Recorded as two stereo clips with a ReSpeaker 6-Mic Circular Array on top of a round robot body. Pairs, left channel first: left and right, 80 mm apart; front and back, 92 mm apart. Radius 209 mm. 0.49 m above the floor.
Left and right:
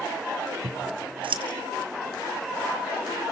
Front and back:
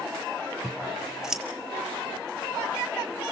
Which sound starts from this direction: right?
Scissors, at 0.6 s.